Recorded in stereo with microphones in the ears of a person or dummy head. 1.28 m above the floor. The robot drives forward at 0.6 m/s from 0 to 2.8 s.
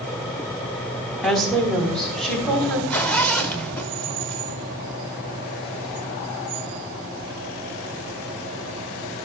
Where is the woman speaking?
Centre (ahead or behind), 1.2 m.